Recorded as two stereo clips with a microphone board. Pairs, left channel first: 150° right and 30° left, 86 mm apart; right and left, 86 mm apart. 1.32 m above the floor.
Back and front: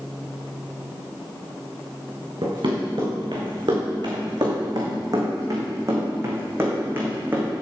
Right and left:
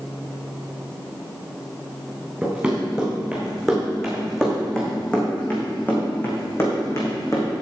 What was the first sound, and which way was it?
Running footsteps, 10° left.